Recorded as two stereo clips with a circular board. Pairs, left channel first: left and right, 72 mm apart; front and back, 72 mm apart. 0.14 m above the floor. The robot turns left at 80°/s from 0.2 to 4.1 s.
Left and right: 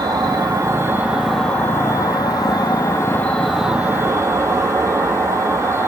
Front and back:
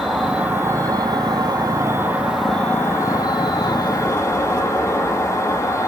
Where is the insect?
95° right, 2.0 m; by 5.9 s 45° right, 2.0 m.